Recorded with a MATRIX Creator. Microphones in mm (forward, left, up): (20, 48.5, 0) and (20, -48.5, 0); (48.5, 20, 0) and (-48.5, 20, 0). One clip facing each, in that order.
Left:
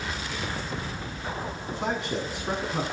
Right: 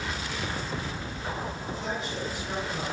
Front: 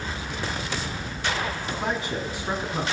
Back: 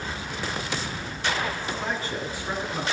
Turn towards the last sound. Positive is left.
turn(degrees=70)